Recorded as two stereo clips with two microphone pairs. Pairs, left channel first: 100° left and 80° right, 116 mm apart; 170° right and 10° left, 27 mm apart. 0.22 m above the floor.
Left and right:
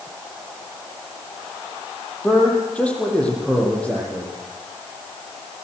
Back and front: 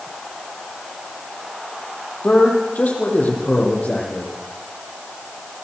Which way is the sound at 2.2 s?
Straight behind.